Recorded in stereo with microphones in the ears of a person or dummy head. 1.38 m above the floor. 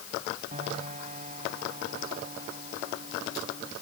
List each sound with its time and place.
0.5 s a piano: 40° right (ahead or behind)